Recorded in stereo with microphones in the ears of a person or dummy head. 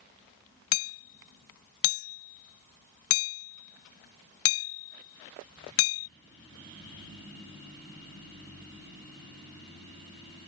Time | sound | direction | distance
0.7 | hammering | 65° left (ahead or behind) | ?